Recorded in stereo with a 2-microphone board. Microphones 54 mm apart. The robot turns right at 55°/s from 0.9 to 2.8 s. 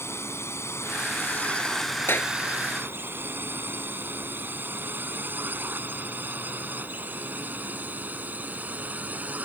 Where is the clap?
40° left (ahead or behind); by 2.3 s 30° left (ahead or behind).